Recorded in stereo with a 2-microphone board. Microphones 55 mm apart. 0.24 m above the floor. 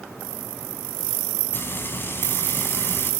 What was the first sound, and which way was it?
Frying, 45° left (ahead or behind).